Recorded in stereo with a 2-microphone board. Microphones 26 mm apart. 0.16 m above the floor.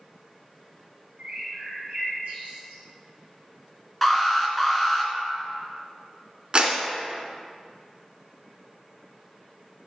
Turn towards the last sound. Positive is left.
turn(degrees=-35)  # may be behind; listen again after turning